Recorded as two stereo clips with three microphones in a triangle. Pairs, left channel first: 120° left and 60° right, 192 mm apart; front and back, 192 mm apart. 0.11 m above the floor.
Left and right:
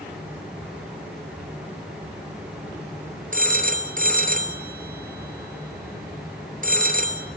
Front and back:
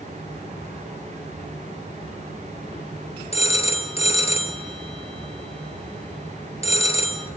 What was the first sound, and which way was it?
A phone ringing, 45° right.